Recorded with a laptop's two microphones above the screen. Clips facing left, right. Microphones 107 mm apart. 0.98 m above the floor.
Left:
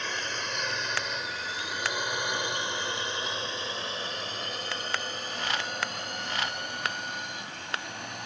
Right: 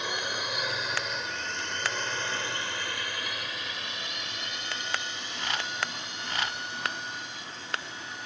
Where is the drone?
10° right (ahead or behind); by 8.3 s 60° left (ahead or behind).